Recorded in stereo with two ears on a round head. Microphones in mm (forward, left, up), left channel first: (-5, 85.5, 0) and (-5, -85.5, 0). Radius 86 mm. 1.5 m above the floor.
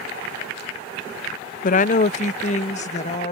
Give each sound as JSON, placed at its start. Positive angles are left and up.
{"t": 1.6, "sound": "a woman speaking", "side_deg": 45}